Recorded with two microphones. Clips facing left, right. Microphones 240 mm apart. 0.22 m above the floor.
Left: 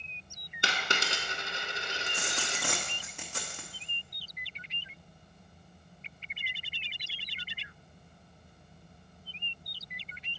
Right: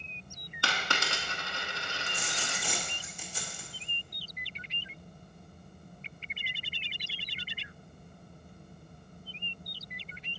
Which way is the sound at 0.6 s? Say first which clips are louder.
Left 1 dB; 20° left (ahead or behind).